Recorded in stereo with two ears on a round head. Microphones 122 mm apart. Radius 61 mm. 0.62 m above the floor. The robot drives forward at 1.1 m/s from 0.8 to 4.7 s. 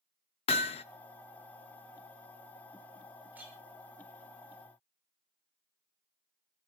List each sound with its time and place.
0.5 s hammering: 45° left (ahead or behind), 0.7 m
3.3 s a clink: 10° right (ahead or behind), 7 m; by 3.5 s 15° right (ahead or behind), 6.5 m